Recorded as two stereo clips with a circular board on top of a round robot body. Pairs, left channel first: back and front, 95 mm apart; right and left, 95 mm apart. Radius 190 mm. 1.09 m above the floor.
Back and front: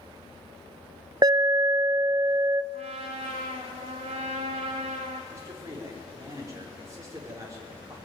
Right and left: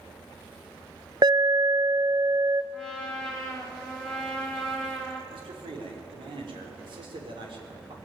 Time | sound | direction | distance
1.2 | an alarm | 45° left | 0.5 m
2.7 | a trumpet | 5° right | 1.2 m
5.3 | a man speaking | 60° left | 4 m